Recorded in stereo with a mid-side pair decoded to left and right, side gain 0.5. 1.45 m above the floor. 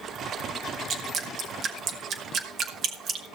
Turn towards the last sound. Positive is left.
turn(degrees=-55)